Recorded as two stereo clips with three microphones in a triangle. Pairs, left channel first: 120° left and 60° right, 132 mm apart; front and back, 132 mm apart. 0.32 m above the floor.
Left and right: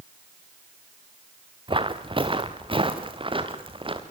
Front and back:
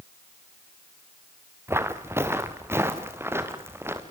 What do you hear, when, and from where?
1.7 s footsteps: 110° right, 1.7 m